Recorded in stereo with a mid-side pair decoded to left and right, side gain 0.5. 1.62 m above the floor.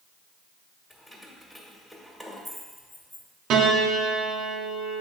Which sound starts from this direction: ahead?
Keys jangling, at 0.9 s.